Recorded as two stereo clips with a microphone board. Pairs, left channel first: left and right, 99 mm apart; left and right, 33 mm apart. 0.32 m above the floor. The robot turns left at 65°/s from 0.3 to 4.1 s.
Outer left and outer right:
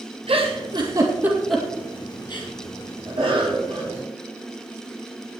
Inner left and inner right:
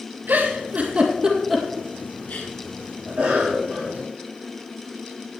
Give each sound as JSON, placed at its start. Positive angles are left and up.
{"t": 0.3, "sound": "a giggle", "side_deg": -80, "distance_m": 2.5}
{"t": 3.0, "sound": "a cough", "azimuth_deg": -80, "distance_m": 5.0}